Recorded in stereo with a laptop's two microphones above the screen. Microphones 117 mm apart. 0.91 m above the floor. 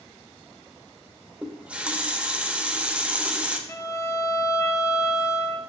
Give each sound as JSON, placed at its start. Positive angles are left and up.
{"t": 1.4, "sound": "a running tap", "side_deg": -10, "distance_m": 0.5}
{"t": 3.7, "sound": "a violin", "side_deg": 25, "distance_m": 0.6}